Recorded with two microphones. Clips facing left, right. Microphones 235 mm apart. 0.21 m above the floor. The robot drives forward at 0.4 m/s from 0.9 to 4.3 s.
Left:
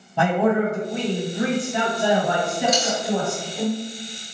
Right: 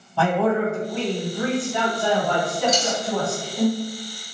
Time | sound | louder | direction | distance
0.2 | a man speaking | left 1 dB | 20° left (ahead or behind) | 1.1 m
2.7 | a dropped coin | left 1 dB | 75° left (ahead or behind) | 1.2 m